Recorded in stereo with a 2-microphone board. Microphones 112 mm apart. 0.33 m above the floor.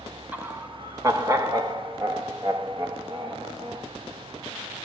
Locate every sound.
0.3 s laughter: 15° right (ahead or behind), 0.9 m; by 3.9 s 35° right (ahead or behind), 2 m